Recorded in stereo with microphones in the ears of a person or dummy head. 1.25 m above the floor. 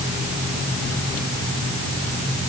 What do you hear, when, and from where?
Only background noise.